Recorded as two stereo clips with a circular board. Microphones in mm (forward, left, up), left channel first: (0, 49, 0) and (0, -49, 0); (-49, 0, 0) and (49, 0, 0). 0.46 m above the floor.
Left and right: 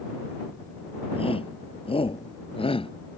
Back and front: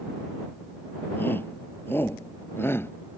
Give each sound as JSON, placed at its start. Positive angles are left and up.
{"t": 1.2, "sound": "a shout", "azimuth_deg": 110}